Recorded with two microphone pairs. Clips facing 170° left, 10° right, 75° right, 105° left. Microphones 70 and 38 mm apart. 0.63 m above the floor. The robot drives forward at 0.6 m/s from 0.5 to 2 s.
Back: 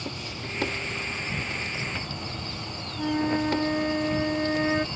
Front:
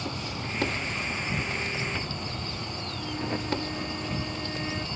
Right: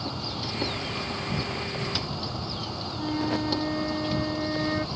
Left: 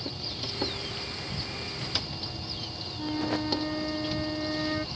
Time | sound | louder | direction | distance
0.0 | an insect | front 2 dB, right 4 dB | 80° right | ?
3.0 | a flute | back 9 dB, right 2 dB | 155° right | ?